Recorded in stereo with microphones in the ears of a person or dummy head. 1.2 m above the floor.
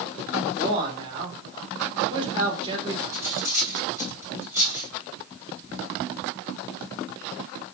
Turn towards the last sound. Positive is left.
turn(degrees=-20)  # may be behind; listen again after turning